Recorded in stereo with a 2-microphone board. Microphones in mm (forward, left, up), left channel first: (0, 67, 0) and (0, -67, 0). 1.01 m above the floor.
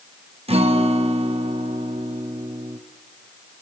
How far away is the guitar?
About 1.4 m.